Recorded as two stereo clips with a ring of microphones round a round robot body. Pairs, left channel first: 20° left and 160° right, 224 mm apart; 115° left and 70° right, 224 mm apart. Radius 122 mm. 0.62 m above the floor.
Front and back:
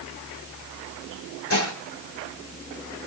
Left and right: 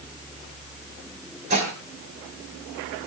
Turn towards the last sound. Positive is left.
turn(degrees=-5)